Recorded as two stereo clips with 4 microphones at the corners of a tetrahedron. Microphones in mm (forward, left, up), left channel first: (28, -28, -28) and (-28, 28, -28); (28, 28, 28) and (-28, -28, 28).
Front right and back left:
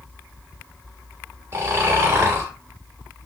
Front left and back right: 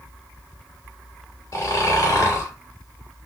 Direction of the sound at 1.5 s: 85° left.